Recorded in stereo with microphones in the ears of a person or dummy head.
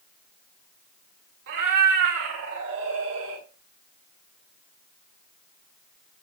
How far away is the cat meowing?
About 1.9 m.